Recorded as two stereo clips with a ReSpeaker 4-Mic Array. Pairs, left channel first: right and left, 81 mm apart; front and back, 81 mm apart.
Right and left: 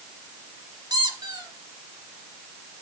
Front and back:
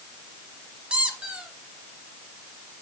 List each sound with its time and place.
0.9 s a squeak: 105° left, 1.6 m